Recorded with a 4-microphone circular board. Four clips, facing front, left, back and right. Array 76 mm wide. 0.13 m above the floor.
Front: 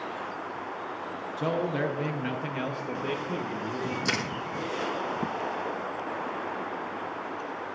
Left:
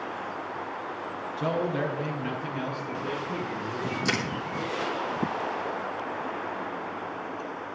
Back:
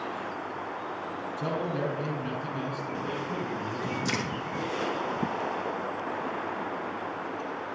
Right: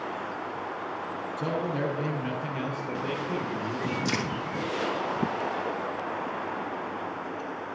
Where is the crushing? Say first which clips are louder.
Left 3 dB, front 1 dB; 45° left, 2.5 m.